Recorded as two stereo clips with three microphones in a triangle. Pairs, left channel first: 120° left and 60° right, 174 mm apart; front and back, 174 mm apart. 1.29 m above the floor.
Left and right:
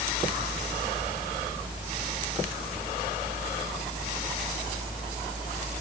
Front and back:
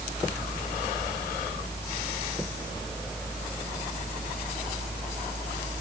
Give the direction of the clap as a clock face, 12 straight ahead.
No clap in this recording.